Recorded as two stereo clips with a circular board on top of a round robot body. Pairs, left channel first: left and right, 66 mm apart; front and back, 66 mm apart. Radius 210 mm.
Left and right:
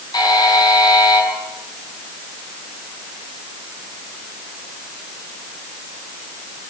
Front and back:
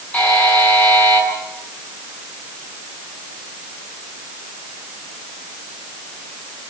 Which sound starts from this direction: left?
A buzzer, at 0.1 s.